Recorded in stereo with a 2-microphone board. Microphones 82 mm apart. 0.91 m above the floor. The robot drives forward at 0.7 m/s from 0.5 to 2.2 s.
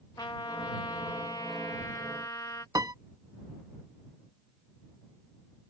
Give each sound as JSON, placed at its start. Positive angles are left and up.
{"t": 0.2, "sound": "a trumpet", "side_deg": 60}
{"t": 2.8, "sound": "a piano", "side_deg": -55}